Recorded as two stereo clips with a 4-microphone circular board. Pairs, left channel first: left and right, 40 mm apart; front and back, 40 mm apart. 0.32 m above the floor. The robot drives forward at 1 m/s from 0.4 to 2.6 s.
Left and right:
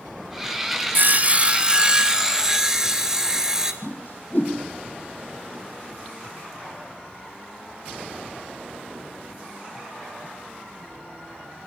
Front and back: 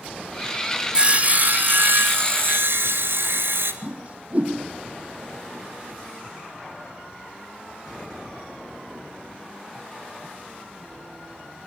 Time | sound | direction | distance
0.9 | sawing | 120° right | 0.7 m
3.8 | a whoosh | 130° left | 2.5 m